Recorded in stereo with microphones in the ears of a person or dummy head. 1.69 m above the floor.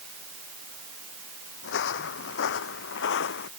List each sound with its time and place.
1.6 s footsteps: 70° left (ahead or behind); by 3.5 s 65° left (ahead or behind)